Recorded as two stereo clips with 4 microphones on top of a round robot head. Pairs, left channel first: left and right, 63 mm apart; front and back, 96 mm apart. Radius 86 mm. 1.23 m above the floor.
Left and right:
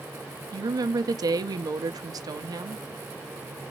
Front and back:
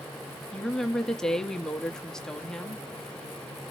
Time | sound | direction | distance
0.5 | a woman speaking | 85° right | 0.8 m